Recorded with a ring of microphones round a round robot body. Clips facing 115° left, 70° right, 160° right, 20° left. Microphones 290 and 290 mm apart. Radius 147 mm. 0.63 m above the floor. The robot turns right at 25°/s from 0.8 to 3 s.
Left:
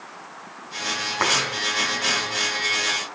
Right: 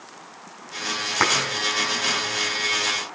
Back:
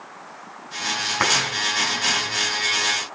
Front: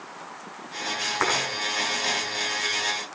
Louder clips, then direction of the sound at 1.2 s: Right 1 dB, even; 120° right.